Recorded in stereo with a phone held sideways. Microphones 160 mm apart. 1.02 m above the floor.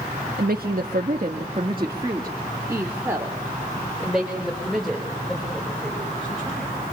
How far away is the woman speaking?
About 1.7 m.